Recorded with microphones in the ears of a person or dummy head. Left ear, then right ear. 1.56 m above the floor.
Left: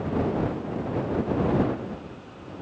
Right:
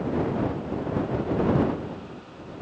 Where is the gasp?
I don't hear a gasp.